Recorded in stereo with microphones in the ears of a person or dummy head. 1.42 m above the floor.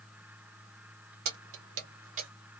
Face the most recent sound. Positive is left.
turn(degrees=-40)  # may be behind; listen again after turning